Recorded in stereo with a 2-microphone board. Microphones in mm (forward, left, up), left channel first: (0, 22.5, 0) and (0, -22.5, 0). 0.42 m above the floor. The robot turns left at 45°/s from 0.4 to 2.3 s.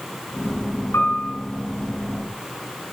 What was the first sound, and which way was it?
A piano, 85° left.